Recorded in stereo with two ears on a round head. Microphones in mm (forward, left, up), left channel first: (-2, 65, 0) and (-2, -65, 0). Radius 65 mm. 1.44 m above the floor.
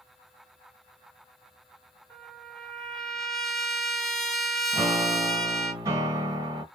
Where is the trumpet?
Centre (ahead or behind), 1.0 m.